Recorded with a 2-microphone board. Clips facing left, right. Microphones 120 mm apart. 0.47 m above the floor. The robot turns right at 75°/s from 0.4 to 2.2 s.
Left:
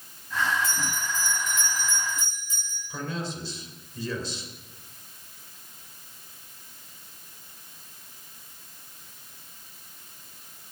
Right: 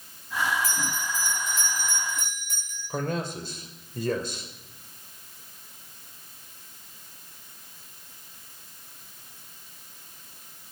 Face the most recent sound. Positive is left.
turn(degrees=-50)  # may be behind; listen again after turning